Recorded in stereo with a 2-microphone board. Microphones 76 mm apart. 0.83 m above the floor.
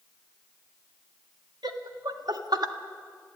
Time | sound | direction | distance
1.6 | laughter | 70° right (ahead or behind) | 1.9 m